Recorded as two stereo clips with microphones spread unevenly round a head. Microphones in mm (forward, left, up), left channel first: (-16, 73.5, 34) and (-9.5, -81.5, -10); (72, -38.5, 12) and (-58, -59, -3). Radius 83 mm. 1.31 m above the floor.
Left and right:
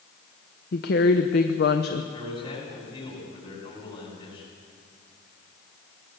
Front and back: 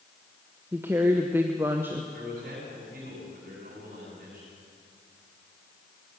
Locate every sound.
0.7 s a woman speaking: 115° left, 1.1 m
2.1 s a man speaking: 150° left, 8.5 m